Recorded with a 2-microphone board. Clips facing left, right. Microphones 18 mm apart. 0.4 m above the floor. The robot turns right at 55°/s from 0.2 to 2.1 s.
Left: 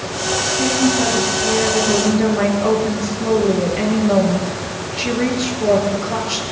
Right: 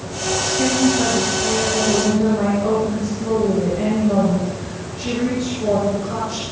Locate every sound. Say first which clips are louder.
0.4 s a woman speaking: even; 30° right, 6 m; by 6.4 s 60° left, 6 m